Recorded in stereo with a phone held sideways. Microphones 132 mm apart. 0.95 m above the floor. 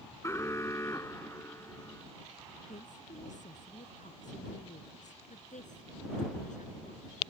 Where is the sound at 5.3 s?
80° left.